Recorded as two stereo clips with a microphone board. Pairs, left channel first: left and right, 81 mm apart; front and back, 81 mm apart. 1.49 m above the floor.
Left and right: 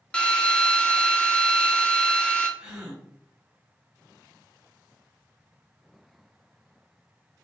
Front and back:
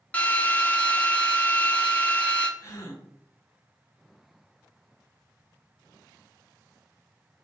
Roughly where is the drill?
Ahead left.